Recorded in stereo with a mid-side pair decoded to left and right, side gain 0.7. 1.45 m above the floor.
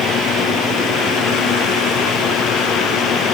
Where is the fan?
45° left.